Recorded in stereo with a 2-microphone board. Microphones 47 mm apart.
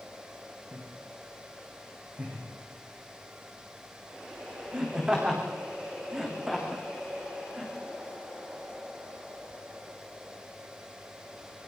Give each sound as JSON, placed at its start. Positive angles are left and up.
{"t": 0.7, "sound": "laughter", "side_deg": -35, "distance_m": 6.0}